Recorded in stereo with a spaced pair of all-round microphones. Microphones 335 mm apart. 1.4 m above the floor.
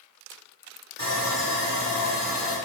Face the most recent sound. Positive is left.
turn(degrees=50)  # may be behind; listen again after turning